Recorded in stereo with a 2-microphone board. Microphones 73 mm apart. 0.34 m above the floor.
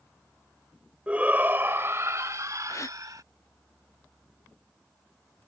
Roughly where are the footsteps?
I don't hear footsteps.